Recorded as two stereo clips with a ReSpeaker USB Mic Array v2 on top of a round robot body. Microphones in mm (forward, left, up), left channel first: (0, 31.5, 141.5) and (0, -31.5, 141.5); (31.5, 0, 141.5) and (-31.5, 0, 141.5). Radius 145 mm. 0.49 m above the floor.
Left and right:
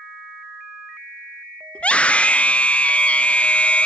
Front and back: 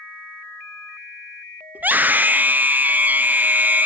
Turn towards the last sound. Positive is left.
turn(degrees=145)